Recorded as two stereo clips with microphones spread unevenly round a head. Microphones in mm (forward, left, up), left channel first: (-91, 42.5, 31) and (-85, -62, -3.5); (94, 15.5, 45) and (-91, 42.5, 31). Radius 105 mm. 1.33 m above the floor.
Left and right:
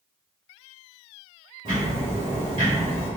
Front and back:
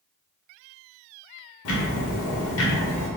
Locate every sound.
1.6 s ticking: 15° right, 1.1 m